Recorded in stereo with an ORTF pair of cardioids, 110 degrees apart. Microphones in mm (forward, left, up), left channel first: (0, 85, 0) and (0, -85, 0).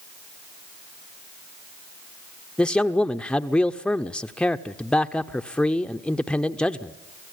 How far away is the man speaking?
About 0.8 m.